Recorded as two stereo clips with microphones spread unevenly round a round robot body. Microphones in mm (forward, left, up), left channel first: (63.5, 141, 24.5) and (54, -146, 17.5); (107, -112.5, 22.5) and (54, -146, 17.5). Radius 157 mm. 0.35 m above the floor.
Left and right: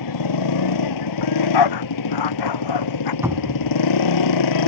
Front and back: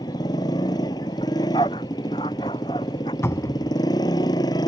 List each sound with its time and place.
0.0 s a motorcycle: 80° left
1.2 s a dog barking: 90° left
3.2 s a cupboard door: 10° right